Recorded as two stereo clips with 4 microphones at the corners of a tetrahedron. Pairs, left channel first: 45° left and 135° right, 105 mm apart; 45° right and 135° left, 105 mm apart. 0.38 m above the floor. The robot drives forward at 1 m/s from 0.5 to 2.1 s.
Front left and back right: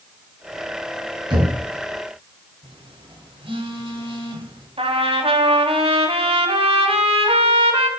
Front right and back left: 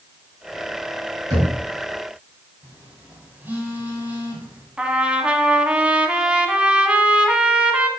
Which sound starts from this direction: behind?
Knocking, at 1.3 s.